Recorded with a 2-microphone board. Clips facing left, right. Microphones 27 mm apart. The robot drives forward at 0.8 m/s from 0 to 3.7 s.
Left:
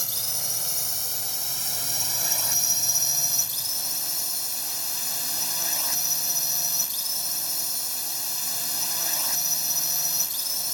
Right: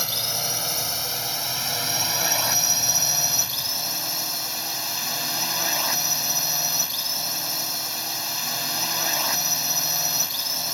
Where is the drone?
35° right (ahead or behind); by 10.8 s 30° right (ahead or behind).